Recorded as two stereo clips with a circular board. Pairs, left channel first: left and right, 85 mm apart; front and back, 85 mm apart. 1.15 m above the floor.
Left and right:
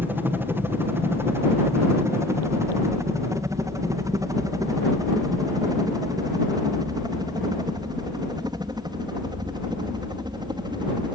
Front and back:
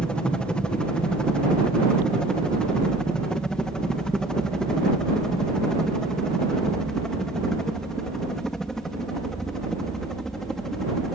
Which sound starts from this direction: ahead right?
A helicopter, at 0.0 s.